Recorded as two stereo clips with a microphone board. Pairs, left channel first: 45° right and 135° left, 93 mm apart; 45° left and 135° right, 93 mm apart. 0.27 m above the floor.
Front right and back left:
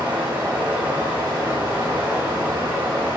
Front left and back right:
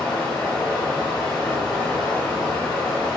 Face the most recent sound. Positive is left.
turn(degrees=115)